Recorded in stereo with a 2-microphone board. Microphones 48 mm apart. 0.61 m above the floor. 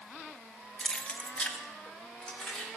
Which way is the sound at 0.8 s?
10° left (ahead or behind).